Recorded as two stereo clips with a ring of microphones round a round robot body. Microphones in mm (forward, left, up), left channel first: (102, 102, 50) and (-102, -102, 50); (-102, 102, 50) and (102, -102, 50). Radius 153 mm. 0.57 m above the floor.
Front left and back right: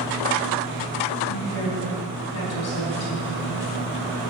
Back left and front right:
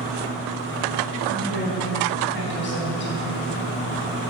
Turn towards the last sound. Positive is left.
turn(degrees=80)